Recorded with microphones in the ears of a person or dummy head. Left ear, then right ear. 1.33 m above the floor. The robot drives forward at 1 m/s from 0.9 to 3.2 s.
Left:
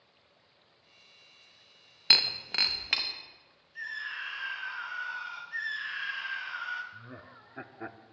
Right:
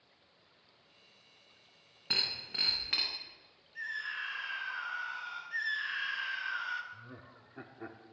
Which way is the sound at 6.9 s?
25° left (ahead or behind).